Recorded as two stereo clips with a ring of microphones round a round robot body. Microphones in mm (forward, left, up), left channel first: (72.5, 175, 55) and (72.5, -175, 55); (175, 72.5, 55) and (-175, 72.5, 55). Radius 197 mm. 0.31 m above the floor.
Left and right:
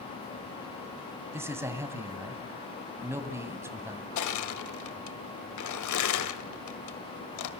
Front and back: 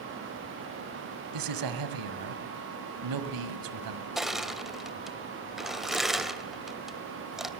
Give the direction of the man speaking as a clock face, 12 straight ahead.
6 o'clock.